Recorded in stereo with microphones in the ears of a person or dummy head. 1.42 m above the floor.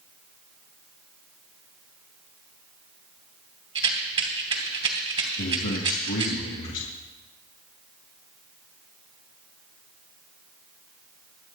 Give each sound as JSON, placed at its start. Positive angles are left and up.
{"t": 3.8, "sound": "a rattle", "side_deg": -30, "distance_m": 2.0}
{"t": 5.4, "sound": "a man speaking", "side_deg": 70, "distance_m": 1.9}